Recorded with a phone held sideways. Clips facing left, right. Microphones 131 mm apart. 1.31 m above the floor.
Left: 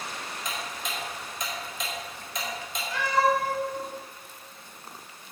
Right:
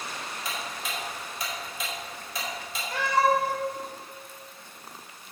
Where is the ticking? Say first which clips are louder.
Even; 5° right (ahead or behind), 4.5 m.